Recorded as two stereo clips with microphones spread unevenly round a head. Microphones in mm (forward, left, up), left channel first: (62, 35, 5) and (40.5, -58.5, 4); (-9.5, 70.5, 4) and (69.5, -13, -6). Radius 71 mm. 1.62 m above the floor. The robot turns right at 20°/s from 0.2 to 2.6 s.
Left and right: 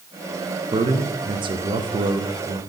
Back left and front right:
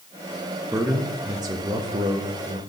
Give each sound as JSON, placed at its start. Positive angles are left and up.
{"t": 0.7, "sound": "a man speaking", "azimuth_deg": -120, "distance_m": 0.8}